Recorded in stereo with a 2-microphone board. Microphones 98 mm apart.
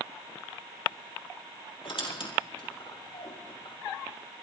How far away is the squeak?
About 4 m.